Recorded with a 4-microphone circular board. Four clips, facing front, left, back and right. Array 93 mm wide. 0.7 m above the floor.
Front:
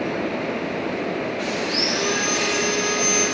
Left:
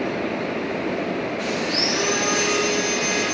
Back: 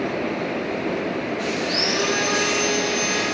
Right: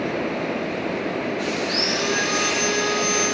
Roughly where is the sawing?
Behind.